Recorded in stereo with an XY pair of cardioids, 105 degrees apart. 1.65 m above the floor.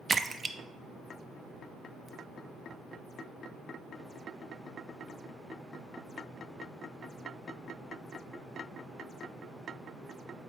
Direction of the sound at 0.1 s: 25° right.